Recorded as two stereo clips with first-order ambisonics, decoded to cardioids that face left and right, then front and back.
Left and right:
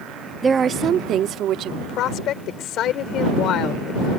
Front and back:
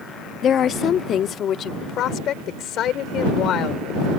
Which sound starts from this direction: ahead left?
A woman speaking, at 1.8 s.